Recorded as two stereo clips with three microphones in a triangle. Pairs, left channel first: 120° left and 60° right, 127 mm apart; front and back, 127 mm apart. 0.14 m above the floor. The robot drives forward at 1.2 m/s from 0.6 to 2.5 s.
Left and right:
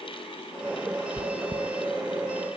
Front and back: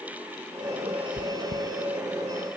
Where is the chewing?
140° right, 0.8 m; by 1.7 s 160° right, 1.3 m.